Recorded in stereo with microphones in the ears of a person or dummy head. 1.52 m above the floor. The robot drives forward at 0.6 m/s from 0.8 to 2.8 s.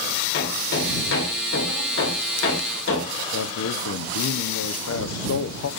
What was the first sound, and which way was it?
Hammering, 65° left (ahead or behind).